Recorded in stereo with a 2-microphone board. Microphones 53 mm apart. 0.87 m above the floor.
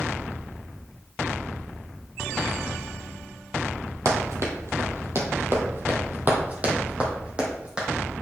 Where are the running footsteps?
65° right (ahead or behind), 1.7 m; by 7.9 s 15° right (ahead or behind), 2.5 m.